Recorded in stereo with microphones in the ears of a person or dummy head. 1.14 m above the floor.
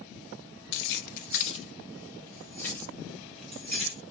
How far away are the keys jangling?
About 0.6 m.